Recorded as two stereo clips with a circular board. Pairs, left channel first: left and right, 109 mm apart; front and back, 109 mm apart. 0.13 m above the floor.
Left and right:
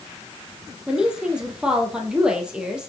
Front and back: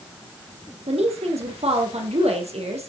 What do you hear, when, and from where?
0.9 s a woman speaking: 170° right, 3.5 m